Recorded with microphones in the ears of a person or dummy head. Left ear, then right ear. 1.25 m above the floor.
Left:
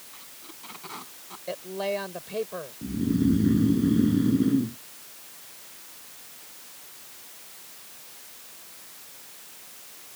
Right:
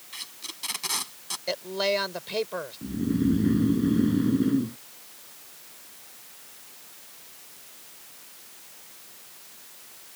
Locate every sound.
0.1 s tape being pulled: 70° right (ahead or behind)
1.5 s a woman speaking: 45° right (ahead or behind)
2.8 s snoring: 25° right (ahead or behind)